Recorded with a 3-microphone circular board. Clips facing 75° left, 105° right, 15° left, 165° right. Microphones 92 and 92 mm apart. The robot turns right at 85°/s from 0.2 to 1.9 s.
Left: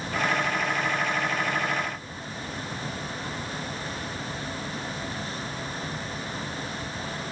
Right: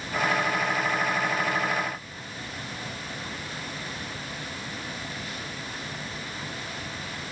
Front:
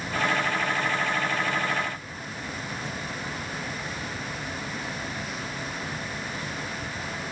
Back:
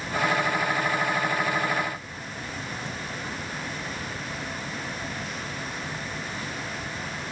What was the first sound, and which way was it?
Only background noise.